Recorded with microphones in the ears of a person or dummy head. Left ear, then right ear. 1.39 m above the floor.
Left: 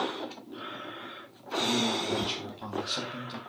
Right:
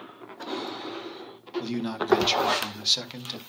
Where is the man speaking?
60° right (ahead or behind), 1.4 m.